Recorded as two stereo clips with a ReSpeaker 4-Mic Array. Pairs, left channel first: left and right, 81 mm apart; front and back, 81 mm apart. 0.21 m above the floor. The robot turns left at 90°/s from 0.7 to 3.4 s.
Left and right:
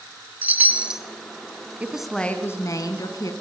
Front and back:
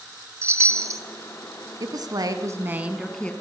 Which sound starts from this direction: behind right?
A chime, at 0.4 s.